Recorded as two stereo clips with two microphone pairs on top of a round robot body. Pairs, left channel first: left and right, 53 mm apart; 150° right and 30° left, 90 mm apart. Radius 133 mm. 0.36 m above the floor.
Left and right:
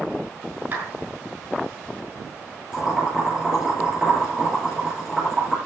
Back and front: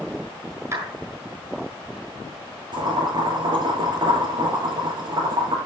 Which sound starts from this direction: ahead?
Boiling, at 2.7 s.